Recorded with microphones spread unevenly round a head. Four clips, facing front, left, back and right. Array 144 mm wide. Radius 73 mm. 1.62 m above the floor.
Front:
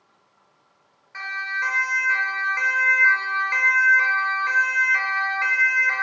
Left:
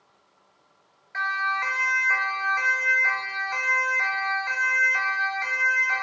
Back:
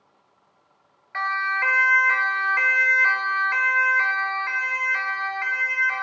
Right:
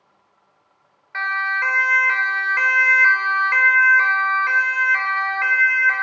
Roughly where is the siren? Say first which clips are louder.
Right 3 dB, back 5 dB; right.